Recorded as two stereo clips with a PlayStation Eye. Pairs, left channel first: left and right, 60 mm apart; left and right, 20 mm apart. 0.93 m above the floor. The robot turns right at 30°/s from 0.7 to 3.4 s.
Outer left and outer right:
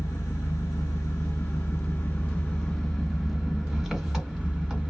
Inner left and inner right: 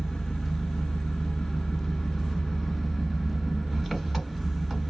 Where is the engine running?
105° left, 1.7 m; by 4.9 s 175° right, 1.7 m.